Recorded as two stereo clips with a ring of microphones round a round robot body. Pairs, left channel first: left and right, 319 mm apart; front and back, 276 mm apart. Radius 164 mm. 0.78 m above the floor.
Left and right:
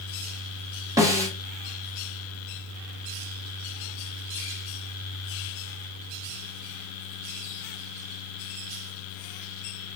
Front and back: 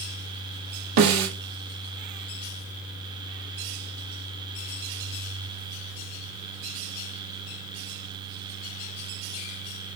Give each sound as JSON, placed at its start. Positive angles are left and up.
{"t": 1.0, "sound": "a snare drum", "azimuth_deg": -170, "distance_m": 1.3}